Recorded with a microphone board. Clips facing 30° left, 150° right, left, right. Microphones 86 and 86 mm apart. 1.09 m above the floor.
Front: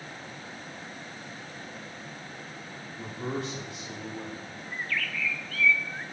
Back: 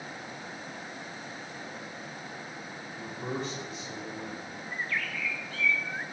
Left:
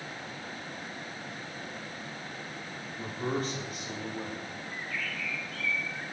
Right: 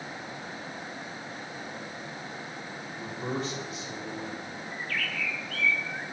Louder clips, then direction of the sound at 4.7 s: Front 1 dB, right 4 dB; 85° right.